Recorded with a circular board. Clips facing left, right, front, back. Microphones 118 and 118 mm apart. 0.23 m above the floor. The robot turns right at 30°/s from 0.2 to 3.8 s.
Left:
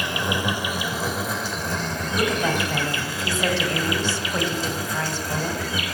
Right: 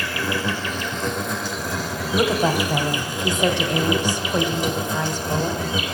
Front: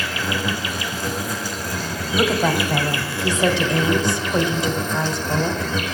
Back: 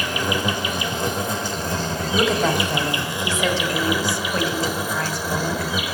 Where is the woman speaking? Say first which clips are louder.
Right 4 dB, front 1 dB; 90° right, 1.1 m; by 5.7 s 40° right, 1.1 m.